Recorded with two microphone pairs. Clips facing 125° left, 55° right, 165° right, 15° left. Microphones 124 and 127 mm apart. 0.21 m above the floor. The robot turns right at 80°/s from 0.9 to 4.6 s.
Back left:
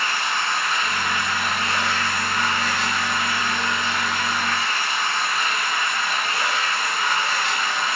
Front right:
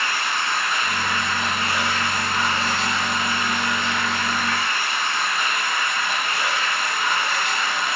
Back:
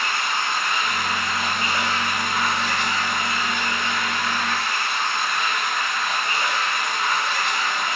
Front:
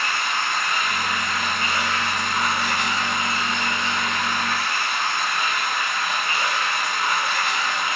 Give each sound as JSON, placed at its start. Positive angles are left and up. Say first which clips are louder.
{"t": 0.0, "sound": "running water", "louder": "even, even", "azimuth_deg": 160, "distance_m": 0.9}